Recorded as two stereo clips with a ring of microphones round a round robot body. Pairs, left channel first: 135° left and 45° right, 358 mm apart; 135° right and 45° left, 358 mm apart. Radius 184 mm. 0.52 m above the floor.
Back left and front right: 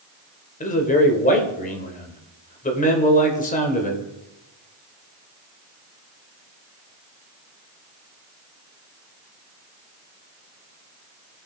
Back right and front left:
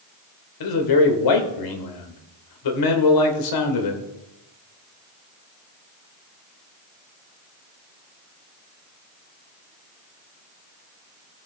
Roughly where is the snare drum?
No snare drum in this recording.